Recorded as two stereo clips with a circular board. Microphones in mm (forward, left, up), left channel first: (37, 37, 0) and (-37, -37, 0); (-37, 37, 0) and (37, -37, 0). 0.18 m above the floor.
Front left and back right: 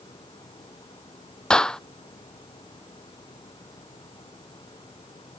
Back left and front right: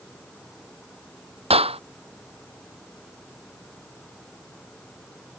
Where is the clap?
40° right.